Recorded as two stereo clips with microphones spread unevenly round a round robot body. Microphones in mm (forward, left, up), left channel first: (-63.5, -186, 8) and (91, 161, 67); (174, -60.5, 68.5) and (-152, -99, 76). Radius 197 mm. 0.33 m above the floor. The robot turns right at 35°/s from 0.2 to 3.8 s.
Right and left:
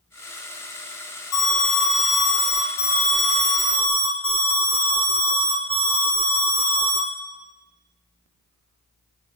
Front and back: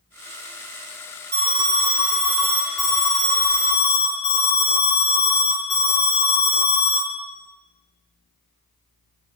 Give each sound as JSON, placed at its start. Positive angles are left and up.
{"t": 1.3, "sound": "an alarm", "azimuth_deg": -120, "distance_m": 1.4}